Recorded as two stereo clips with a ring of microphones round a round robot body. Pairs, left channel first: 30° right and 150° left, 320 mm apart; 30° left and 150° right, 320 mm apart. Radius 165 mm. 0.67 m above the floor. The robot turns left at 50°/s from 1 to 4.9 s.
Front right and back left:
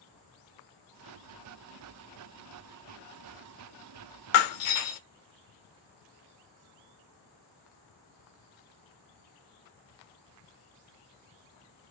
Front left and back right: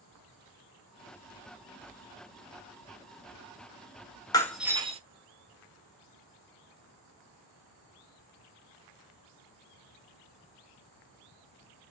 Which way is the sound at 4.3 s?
50° right.